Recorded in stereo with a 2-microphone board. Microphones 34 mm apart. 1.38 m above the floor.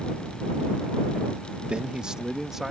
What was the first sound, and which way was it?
A man speaking, 35° right (ahead or behind).